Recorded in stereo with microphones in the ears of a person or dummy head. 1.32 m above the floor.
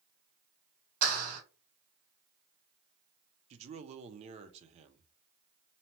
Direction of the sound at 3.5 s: 40° right (ahead or behind).